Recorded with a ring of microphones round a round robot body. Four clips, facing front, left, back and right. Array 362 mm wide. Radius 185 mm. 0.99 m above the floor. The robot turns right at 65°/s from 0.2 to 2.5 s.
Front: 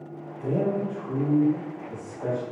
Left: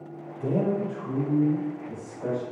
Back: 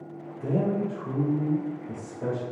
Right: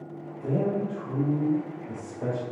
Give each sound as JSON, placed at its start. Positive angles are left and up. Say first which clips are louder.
{"t": 0.4, "sound": "a man speaking", "louder": "left 1 dB, front 1 dB", "azimuth_deg": 110, "distance_m": 3.5}